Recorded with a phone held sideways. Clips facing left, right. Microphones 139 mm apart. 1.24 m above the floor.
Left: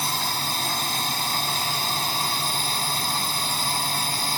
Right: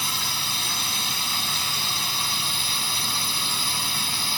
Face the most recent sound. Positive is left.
turn(degrees=45)  # may be behind; listen again after turning